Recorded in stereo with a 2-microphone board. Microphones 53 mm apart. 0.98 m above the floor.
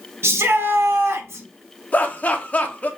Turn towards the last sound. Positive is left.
turn(degrees=25)  # may be behind; listen again after turning